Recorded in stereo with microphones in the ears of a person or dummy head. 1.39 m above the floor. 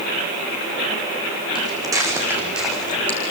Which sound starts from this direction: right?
Footsteps, at 1.6 s.